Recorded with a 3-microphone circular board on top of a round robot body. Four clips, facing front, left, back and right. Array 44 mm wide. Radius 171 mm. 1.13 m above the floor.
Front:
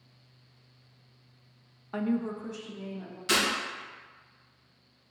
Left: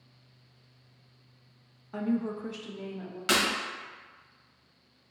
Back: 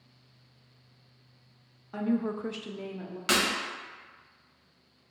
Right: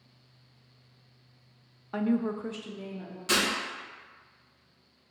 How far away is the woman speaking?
About 0.5 m.